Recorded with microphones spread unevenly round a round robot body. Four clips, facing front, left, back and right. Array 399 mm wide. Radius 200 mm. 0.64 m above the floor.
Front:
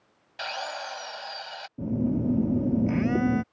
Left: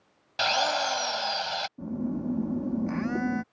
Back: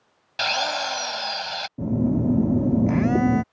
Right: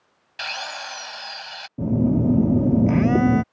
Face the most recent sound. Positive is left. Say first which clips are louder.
# right 15 dB, back 4 dB
turn(degrees=-110)